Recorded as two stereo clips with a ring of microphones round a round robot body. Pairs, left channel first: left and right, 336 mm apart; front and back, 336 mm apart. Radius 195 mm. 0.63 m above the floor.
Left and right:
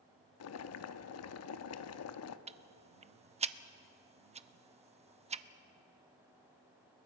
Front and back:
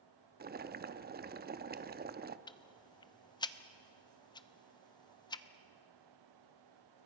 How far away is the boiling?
About 0.8 m.